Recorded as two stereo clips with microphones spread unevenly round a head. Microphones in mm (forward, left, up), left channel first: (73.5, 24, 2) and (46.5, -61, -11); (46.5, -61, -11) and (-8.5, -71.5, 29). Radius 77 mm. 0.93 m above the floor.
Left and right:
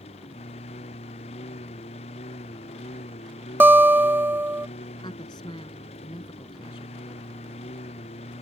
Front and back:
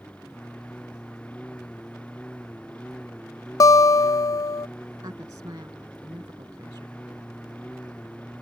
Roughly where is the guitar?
Ahead right.